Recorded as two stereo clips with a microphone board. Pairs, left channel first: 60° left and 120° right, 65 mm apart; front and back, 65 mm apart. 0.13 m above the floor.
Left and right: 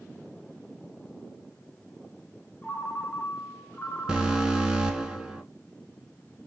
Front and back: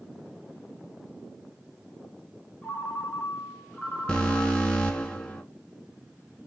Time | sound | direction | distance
2.6 | a ringtone | 65° left | 1.0 m
4.1 | an alarm | 55° right | 0.9 m